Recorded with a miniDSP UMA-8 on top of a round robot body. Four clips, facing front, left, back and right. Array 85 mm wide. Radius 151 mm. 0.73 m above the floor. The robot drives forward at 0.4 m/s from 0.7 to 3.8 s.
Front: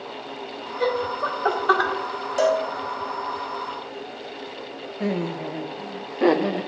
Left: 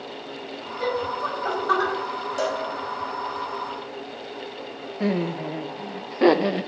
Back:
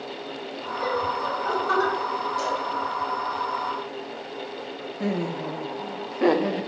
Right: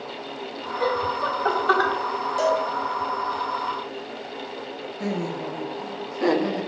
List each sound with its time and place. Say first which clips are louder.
0.8 s laughter: right 2 dB, front 2 dB; 25° right, 1.9 m; by 1.9 s 30° right, 1.5 m
2.4 s a cowbell: right 5 dB, front 7 dB; straight ahead, 0.6 m
5.0 s laughter: left 4 dB, front 1 dB; 85° left, 0.7 m